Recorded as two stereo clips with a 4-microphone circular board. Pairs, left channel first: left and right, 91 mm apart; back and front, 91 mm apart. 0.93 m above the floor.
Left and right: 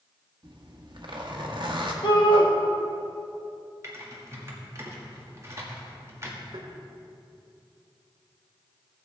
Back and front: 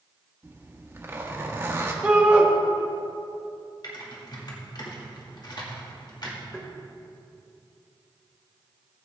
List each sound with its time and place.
0.4 s a zipper: 60° right, 1.4 m
2.0 s a shout: 75° left, 2 m
3.8 s typing on a keyboard: 145° right, 1.9 m
6.5 s tapping: 105° right, 1.6 m